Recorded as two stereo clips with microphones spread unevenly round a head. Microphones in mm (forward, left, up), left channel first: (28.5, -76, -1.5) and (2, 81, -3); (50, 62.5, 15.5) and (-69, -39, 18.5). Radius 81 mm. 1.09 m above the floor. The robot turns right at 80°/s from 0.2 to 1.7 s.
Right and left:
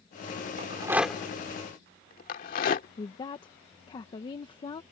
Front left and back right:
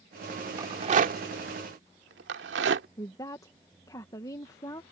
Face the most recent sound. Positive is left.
turn(degrees=-25)